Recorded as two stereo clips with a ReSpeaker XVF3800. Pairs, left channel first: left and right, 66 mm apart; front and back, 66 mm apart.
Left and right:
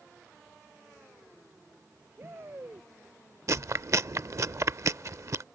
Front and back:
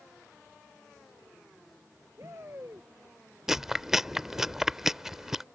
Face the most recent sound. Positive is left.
turn(degrees=-100)